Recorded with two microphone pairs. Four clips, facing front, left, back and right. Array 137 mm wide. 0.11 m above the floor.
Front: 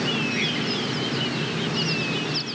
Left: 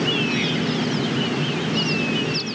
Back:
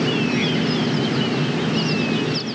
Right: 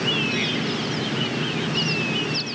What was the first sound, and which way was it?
Only background noise.